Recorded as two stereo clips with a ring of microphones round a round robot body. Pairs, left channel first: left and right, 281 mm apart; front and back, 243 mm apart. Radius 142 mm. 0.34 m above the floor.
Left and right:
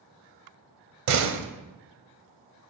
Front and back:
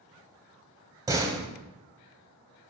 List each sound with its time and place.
1.1 s a door slam: 105° right, 1.1 m